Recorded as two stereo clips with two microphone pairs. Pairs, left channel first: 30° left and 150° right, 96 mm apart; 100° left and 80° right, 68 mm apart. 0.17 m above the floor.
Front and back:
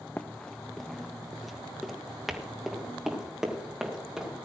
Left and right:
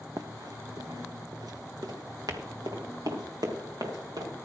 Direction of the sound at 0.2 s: 50° right.